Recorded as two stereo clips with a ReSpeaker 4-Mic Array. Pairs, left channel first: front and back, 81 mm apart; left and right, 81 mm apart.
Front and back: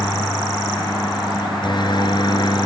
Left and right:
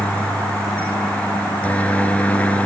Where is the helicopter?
20° left.